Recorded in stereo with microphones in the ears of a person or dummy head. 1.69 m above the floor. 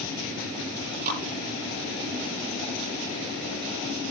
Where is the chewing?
50° right (ahead or behind), 8.5 m.